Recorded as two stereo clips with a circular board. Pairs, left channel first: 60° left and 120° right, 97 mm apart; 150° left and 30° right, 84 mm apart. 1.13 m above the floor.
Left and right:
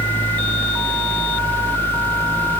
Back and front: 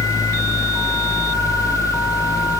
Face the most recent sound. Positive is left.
No sound to turn to.